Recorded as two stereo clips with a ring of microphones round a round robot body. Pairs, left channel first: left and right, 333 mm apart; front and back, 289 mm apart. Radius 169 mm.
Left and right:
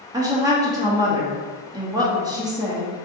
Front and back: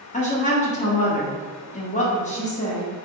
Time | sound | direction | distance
0.1 | a woman speaking | 25° right | 0.8 m